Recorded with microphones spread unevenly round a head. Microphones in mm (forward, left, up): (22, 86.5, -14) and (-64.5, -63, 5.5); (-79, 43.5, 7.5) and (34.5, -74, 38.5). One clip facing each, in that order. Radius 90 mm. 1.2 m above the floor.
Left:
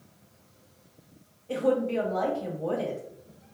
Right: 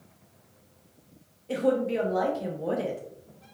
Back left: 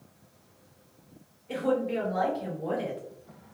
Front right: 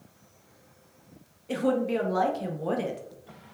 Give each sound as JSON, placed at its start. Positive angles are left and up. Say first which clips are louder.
{"t": 1.5, "sound": "a woman speaking", "louder": "even, front right 2 dB", "azimuth_deg": -50, "distance_m": 0.7}